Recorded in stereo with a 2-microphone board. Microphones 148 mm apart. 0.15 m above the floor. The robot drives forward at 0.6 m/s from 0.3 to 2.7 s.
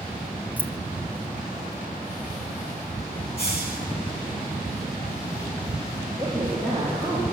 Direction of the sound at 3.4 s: 75° left (ahead or behind).